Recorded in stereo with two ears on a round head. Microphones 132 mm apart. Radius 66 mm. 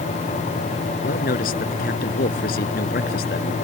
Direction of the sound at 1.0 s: 70° left (ahead or behind).